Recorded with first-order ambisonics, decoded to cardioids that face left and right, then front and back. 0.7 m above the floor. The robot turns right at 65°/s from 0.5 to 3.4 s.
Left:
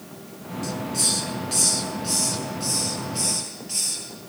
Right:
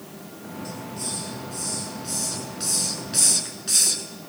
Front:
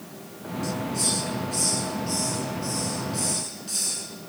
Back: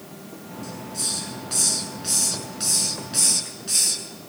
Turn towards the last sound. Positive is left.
turn(degrees=-105)